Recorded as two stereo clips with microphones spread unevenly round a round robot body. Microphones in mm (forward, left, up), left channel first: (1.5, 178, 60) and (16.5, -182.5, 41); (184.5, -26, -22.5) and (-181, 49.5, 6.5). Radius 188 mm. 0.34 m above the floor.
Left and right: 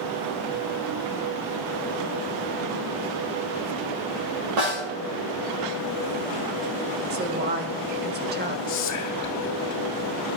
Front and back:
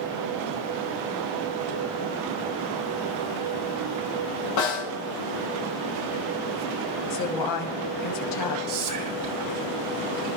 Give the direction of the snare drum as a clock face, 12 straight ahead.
2 o'clock.